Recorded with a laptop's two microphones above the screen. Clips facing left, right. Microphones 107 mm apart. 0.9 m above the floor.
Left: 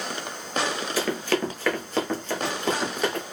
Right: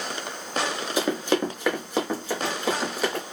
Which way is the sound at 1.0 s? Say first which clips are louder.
Right 2 dB; 20° right (ahead or behind).